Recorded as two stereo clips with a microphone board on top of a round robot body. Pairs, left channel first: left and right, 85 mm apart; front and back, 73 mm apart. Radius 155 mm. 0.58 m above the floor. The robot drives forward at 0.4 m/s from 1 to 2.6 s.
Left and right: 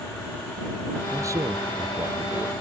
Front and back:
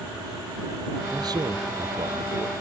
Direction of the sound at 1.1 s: 145° right.